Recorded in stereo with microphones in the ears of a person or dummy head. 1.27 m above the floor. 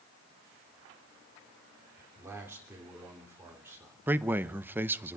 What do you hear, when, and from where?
2.0 s a man speaking: 10° right (ahead or behind), 3.5 m
4.1 s a man speaking: 10° right (ahead or behind), 0.7 m